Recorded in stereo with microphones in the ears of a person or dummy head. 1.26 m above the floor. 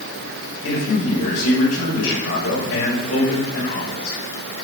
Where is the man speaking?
80° left, 6.5 m.